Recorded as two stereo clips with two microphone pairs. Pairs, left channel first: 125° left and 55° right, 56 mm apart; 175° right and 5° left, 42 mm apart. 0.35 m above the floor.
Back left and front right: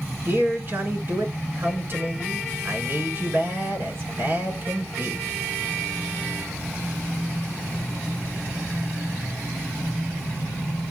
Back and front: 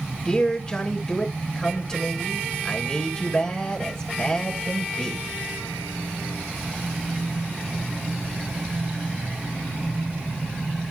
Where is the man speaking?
100° right, 4 m.